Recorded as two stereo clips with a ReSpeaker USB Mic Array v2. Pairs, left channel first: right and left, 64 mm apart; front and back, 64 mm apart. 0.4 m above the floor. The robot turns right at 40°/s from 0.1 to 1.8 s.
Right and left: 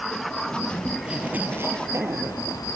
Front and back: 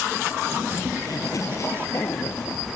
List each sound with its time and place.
1.0 s a zipper: 15° left; by 2.6 s 45° left